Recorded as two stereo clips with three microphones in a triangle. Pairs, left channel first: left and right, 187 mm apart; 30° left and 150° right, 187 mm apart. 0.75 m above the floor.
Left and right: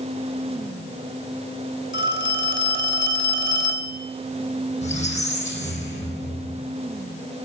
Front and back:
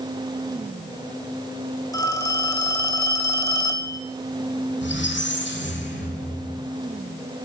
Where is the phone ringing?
100° left, 2.5 m.